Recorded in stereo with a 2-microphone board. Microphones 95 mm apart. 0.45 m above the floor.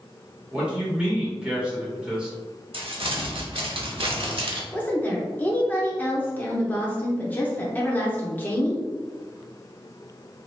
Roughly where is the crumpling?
Right.